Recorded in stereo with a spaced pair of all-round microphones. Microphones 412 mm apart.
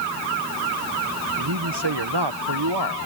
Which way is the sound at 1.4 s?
75° right (ahead or behind).